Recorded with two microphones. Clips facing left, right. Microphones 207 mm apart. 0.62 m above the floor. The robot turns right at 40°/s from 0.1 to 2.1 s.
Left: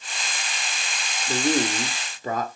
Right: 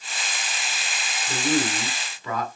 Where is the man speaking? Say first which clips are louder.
Left 1 dB; 70° left, 1.5 m; by 2.5 s 105° left, 1.5 m.